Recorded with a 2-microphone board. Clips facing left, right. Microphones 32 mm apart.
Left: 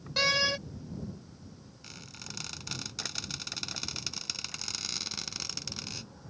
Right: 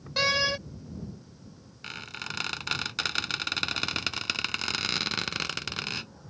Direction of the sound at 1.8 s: 60° right (ahead or behind).